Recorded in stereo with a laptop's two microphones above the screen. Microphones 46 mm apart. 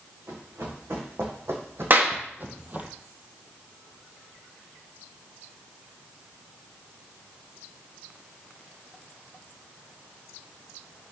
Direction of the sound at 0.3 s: 70° right (ahead or behind).